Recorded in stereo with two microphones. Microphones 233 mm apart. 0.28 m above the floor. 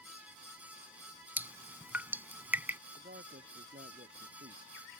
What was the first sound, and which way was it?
Dripping, 10° right (ahead or behind).